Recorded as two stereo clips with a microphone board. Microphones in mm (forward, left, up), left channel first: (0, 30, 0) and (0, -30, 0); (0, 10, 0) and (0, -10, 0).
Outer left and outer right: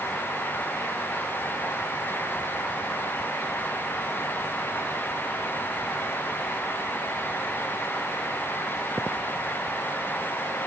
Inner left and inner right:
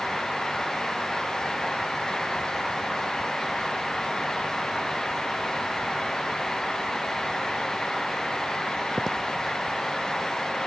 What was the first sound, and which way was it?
Only background noise.